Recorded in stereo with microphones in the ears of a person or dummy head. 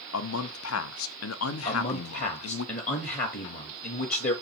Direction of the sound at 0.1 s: 80° left.